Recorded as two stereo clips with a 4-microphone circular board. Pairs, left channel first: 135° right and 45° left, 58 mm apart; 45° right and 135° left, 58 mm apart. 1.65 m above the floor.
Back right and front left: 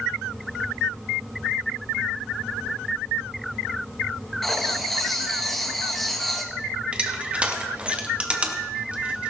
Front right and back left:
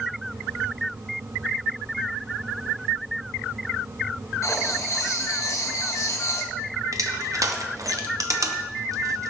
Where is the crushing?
115° left, 1.3 m.